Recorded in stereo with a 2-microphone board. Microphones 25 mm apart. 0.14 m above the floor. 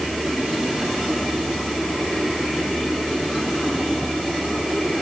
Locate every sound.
Only background noise.